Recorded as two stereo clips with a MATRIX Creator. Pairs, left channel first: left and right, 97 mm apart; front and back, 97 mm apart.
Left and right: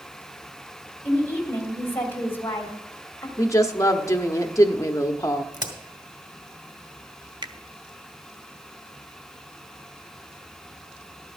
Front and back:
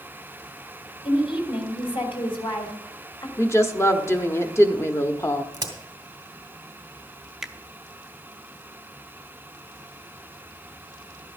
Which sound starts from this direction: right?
A finger snap, at 7.4 s.